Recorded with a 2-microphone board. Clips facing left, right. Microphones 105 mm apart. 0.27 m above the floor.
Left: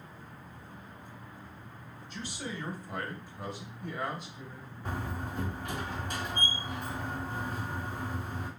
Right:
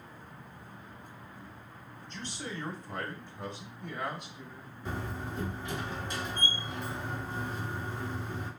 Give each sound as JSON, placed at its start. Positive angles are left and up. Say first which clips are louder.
{"t": 2.1, "sound": "a man speaking", "louder": "left 1 dB", "side_deg": 10, "distance_m": 1.3}
{"t": 4.8, "sound": "a door slam", "louder": "even", "side_deg": 55, "distance_m": 1.6}